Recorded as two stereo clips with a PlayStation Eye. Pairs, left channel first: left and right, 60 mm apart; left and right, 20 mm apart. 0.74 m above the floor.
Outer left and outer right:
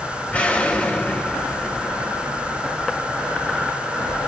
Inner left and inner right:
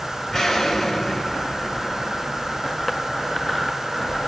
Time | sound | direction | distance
0.3 | an explosion | 20° left (ahead or behind) | 3 m